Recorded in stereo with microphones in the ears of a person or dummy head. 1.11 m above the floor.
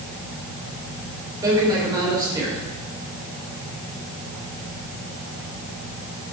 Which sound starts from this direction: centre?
A man speaking, at 1.4 s.